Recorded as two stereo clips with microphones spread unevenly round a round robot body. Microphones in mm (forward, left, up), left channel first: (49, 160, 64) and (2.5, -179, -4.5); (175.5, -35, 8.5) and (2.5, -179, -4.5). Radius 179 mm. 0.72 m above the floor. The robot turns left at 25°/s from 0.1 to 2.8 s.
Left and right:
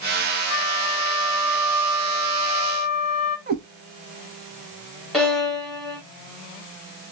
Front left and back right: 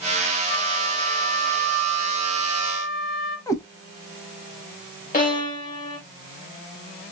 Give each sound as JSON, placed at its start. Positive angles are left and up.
{"t": 0.5, "sound": "a flute", "azimuth_deg": 65, "distance_m": 3.0}
{"t": 3.5, "sound": "a cat meowing", "azimuth_deg": -30, "distance_m": 0.7}
{"t": 5.1, "sound": "a violin", "azimuth_deg": -15, "distance_m": 1.7}